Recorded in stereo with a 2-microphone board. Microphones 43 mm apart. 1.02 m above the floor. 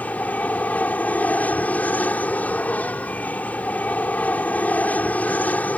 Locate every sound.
0.0 s an aircraft: 40° left (ahead or behind)